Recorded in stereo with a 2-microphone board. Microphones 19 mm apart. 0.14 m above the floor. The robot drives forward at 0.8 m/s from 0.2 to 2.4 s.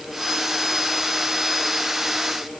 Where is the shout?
I don't hear a shout.